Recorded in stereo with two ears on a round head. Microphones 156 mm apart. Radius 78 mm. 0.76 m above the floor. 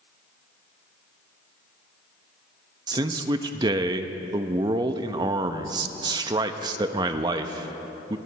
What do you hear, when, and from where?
2.9 s a man speaking: 25° right (ahead or behind), 0.5 m